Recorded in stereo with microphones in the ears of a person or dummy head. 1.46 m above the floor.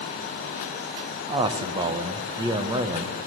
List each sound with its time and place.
1.3 s a man speaking: 20° right (ahead or behind), 1.4 m